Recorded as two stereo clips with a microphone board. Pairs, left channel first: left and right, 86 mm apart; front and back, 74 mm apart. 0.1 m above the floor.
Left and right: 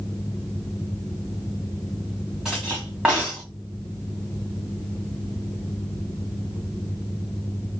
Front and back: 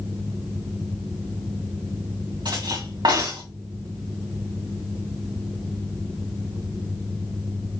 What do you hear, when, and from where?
2.5 s cutlery clinking: 170° right, 5 m